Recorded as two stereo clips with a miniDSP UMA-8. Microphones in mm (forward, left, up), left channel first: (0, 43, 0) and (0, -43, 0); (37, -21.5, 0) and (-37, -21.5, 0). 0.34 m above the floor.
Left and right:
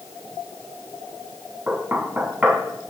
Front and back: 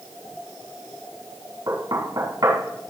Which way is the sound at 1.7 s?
160° right.